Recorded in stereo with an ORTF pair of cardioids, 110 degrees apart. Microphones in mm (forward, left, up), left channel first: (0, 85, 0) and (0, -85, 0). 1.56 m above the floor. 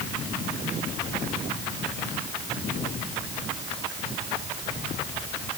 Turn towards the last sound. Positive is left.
No sound to turn to.